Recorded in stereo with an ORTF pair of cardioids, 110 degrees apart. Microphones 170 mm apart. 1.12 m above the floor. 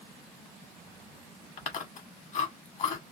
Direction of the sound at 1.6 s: 45° left.